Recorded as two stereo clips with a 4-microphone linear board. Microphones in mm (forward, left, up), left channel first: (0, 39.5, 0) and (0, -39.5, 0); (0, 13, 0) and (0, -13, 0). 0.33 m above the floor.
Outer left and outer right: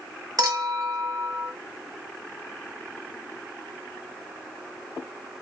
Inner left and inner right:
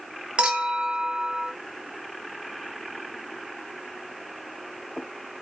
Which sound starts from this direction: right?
A clink, at 0.4 s.